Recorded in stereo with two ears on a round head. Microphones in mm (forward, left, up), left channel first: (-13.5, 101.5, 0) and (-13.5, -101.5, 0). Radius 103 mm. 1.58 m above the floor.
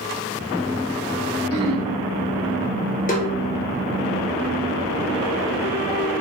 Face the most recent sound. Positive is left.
turn(degrees=35)  # may be behind; listen again after turning